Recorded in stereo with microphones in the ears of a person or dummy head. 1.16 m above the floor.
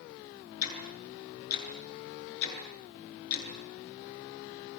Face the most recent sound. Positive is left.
turn(degrees=55)  # may be behind; listen again after turning